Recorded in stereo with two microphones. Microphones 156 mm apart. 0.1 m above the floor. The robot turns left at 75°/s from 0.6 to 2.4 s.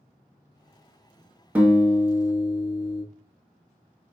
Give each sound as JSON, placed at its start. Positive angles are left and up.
{"t": 1.6, "sound": "a guitar", "azimuth_deg": -160, "distance_m": 0.8}